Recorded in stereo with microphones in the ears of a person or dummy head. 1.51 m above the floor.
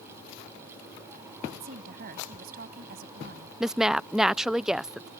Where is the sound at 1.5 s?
55° right (ahead or behind).